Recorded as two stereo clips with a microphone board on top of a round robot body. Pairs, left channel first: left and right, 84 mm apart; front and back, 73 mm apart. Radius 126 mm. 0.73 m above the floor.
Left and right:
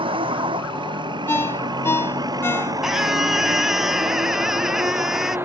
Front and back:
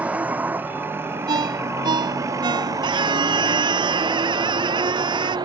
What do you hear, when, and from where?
0.0 s a vehicle: 110° right; by 5.5 s 155° right
1.3 s a ringtone: 155° left
2.8 s a scream: 175° right